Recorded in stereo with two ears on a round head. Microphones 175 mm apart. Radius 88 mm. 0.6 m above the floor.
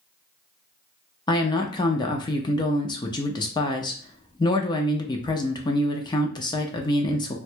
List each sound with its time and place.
1.3 s a woman speaking: 20° left (ahead or behind), 0.6 m